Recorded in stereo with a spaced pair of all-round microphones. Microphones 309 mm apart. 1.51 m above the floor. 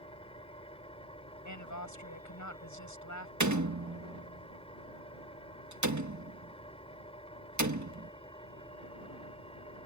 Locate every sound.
0.0 s an engine running: 20° left (ahead or behind)
1.4 s a woman speaking: 70° left (ahead or behind)
3.4 s a door slam: 65° right (ahead or behind)